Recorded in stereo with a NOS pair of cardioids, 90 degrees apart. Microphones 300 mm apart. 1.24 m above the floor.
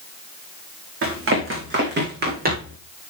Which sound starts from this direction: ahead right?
Running footsteps, at 1.0 s.